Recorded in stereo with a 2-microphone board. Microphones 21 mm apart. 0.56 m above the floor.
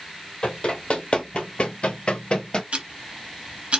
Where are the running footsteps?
45° left (ahead or behind), 1.2 m; by 2.6 s 40° left (ahead or behind), 0.7 m.